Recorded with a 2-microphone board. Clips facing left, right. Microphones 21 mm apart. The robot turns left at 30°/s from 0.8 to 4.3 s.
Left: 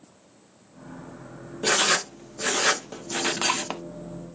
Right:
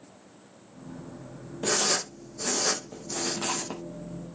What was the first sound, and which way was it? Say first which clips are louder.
Writing: left 5 dB; 45° left (ahead or behind).